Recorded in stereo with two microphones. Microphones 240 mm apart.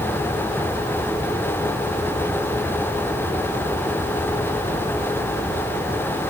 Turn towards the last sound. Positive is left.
No sound to turn to.